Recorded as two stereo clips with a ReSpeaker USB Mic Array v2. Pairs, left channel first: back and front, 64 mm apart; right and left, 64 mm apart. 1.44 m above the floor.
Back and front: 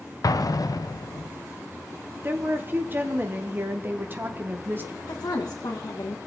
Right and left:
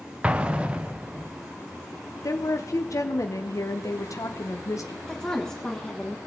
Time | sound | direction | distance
0.2 | an explosion | 160° left | 0.7 m
2.2 | a woman speaking | 55° right | 0.8 m
5.1 | a woman speaking | 170° right | 1.8 m